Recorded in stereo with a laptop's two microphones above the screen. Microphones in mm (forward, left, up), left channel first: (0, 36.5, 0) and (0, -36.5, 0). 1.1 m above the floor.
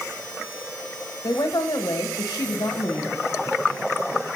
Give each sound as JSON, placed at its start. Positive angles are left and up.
{"t": 1.2, "sound": "a woman speaking", "side_deg": 55, "distance_m": 1.2}